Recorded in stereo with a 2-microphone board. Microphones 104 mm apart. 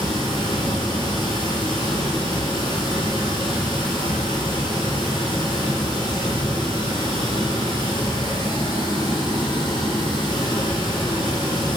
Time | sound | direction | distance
0.0 | running water | 45° left (ahead or behind) | 2 m